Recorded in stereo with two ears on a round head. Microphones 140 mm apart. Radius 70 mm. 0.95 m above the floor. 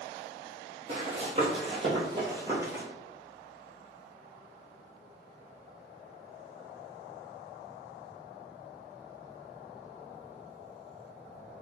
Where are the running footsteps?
50° right (ahead or behind), 1.7 m; by 2.8 s 15° right (ahead or behind), 1.3 m.